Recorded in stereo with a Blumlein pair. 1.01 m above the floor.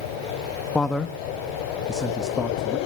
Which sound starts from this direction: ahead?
A man speaking, at 0.8 s.